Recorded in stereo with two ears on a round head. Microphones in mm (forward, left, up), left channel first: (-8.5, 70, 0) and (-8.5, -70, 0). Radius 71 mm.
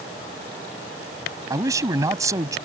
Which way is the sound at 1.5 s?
20° right (ahead or behind).